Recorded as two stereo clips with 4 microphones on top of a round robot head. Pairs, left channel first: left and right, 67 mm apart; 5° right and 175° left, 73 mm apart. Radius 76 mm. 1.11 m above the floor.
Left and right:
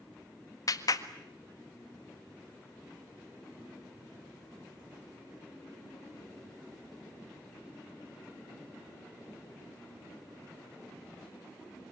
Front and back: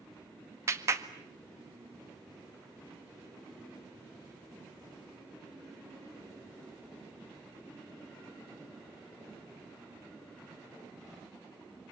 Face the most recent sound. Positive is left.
turn(degrees=125)